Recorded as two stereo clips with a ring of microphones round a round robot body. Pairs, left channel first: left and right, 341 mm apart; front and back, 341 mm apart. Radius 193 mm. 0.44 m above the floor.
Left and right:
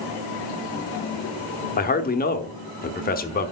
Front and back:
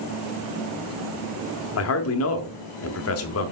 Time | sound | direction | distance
1.8 | a man speaking | 30° left | 1.0 m